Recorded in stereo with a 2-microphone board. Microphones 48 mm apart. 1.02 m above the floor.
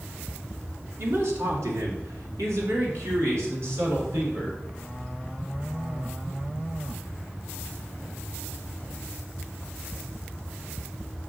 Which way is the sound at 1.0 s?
60° right (ahead or behind).